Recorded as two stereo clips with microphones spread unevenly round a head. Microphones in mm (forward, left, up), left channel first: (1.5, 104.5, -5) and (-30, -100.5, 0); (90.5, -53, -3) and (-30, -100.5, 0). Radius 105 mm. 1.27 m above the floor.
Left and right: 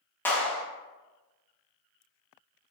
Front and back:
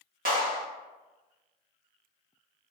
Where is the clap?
165° left, 1.1 m.